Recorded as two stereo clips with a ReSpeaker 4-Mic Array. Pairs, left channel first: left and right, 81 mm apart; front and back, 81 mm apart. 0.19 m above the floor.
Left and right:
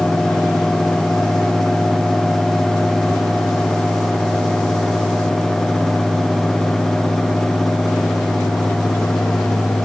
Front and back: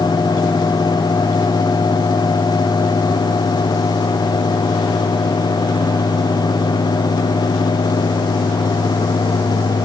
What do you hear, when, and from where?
Only background noise.